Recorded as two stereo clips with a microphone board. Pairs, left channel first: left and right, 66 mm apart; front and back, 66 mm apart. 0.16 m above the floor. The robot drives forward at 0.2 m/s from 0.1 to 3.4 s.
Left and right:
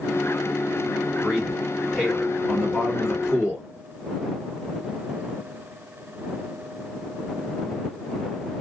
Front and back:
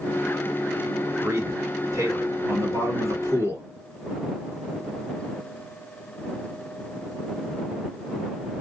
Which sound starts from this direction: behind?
A man speaking, at 1.2 s.